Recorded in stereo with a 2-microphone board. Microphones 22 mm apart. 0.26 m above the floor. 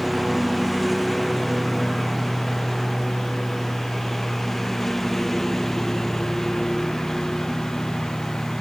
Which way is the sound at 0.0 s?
5° left (ahead or behind).